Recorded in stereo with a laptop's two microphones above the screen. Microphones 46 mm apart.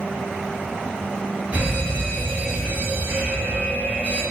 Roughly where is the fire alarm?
Right.